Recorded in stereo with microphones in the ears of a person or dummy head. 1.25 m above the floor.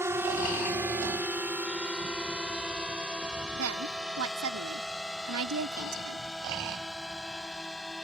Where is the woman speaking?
75° right (ahead or behind).